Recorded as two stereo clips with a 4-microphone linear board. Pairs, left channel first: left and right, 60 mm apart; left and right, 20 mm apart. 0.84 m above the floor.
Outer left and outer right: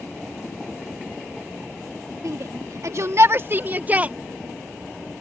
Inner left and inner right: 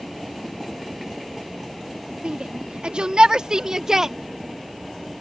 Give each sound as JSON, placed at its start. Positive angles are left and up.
{"t": 2.2, "sound": "a shout", "side_deg": -70}